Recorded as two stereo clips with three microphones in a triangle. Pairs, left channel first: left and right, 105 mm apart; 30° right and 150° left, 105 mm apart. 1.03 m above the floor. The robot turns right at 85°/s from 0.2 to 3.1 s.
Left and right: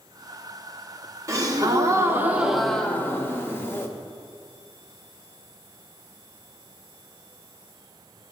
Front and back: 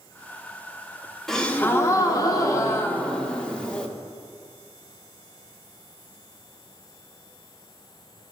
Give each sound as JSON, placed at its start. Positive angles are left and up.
{"t": 1.3, "sound": "a gasp", "azimuth_deg": -115, "distance_m": 0.6}